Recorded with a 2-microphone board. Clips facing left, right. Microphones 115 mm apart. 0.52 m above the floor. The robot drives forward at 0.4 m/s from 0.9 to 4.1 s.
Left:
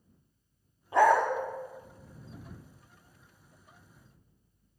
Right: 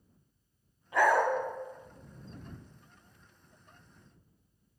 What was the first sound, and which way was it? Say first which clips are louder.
A dog barking: left 3 dB; 25° left (ahead or behind).